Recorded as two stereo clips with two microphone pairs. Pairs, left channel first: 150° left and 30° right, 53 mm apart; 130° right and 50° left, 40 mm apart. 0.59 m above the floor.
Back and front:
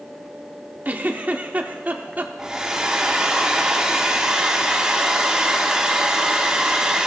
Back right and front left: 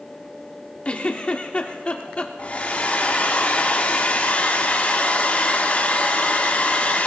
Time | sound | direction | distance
0.8 | a giggle | 80° right | 1.1 m
2.4 | a hair dryer | 100° right | 1.3 m